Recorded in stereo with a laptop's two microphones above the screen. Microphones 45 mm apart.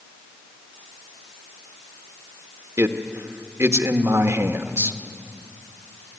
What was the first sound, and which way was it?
A man speaking, 65° right (ahead or behind).